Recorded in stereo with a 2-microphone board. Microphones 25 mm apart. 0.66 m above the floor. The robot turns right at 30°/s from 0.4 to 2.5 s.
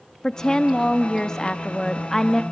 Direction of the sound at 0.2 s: 25° left (ahead or behind).